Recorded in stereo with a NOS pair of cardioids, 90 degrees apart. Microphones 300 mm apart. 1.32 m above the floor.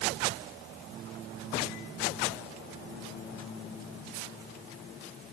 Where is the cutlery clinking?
I don't hear cutlery clinking.